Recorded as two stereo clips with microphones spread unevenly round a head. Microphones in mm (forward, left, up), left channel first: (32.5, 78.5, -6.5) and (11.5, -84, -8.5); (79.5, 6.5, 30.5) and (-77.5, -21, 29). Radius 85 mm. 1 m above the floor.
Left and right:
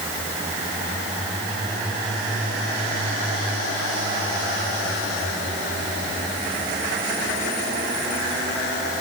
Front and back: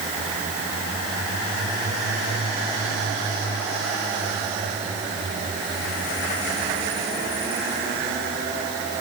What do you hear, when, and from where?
Only background noise.